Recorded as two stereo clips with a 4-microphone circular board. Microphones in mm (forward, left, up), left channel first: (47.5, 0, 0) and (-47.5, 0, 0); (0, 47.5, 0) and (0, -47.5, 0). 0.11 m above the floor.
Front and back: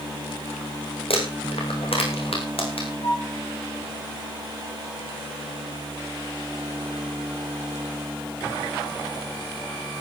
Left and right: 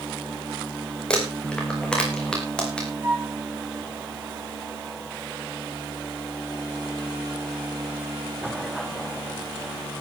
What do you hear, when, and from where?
1.1 s crumpling: 10° left, 5 m
3.0 s a flute: 35° right, 7.5 m